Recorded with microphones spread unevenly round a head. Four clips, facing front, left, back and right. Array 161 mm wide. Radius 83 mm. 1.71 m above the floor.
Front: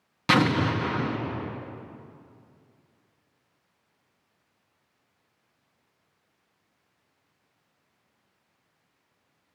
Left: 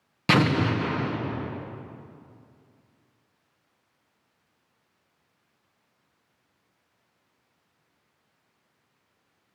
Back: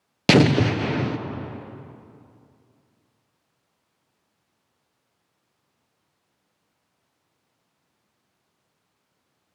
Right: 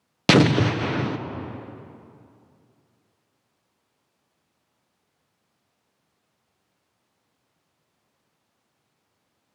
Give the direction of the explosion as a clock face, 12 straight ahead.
5 o'clock.